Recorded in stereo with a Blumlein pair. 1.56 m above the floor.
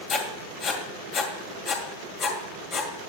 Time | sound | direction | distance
0.1 | writing | 30° left | 2 m